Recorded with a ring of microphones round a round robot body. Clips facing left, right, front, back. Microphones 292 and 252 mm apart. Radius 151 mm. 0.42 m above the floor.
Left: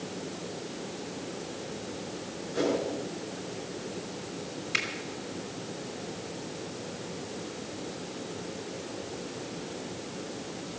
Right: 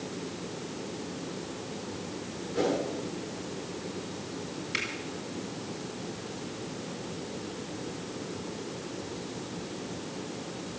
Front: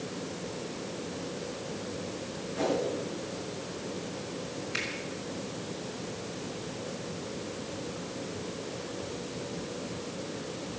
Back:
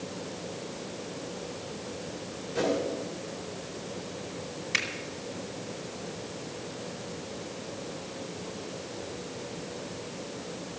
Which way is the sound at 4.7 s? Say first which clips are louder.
Even, front 1 dB; straight behind.